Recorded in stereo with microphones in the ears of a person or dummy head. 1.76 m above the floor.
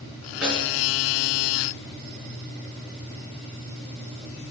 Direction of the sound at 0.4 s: 5° right (ahead or behind).